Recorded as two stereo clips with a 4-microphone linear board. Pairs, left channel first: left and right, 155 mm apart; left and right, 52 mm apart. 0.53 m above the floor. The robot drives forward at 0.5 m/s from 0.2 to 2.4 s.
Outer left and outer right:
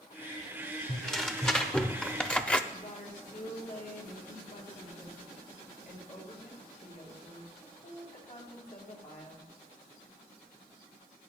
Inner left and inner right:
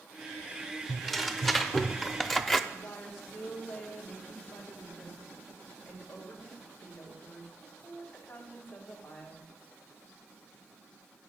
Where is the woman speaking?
55° left (ahead or behind), 3 m.